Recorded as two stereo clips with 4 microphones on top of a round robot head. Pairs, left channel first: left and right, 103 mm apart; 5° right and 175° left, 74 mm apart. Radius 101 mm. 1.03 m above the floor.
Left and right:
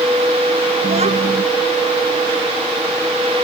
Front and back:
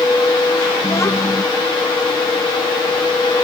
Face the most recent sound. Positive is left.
turn(degrees=-65)